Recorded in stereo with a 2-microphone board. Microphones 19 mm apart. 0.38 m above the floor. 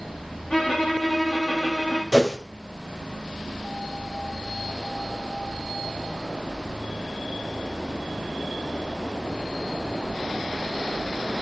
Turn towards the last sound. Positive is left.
turn(degrees=-15)  # may be behind; listen again after turning